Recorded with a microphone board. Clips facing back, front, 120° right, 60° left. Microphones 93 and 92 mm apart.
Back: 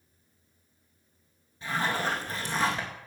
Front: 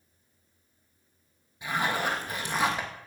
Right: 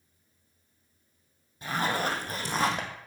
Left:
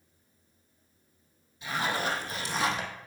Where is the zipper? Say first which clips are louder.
Front 1 dB, right 2 dB; 75° right, 2 m.